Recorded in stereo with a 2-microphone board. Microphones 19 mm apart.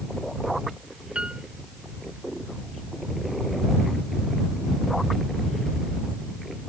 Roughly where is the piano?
Right.